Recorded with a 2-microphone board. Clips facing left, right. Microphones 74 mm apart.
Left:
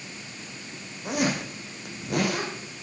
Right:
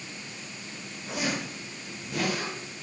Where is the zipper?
70° left (ahead or behind), 6 m.